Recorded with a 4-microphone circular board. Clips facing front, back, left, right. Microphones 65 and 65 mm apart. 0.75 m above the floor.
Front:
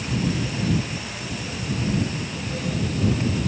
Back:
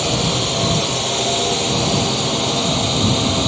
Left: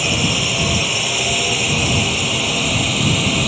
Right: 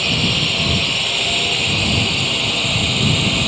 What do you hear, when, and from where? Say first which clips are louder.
0.0 s a drone: back 6 dB, left 1 dB; 170° left; by 3.5 s 175° left